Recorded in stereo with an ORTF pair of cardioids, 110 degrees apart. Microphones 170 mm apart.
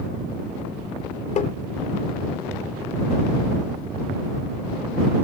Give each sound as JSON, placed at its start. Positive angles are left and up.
{"t": 1.4, "sound": "tapping", "azimuth_deg": 45}